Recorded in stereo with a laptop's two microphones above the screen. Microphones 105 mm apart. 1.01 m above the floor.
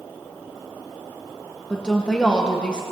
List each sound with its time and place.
1.7 s a woman speaking: 10° left (ahead or behind), 0.8 m